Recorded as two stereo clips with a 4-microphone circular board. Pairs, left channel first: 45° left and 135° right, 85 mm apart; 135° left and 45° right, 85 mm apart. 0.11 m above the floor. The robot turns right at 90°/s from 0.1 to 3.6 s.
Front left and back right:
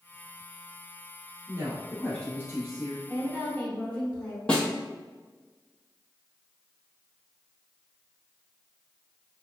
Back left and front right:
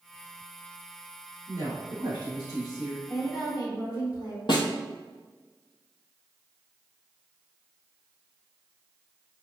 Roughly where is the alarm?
No alarm in this recording.